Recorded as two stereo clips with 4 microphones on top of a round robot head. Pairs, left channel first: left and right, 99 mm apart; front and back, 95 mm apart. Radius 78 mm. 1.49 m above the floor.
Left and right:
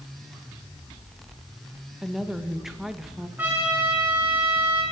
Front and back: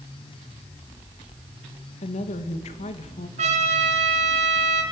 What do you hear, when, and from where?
2.0 s a woman speaking: 5° right, 2 m
3.4 s a trumpet: 170° right, 3.5 m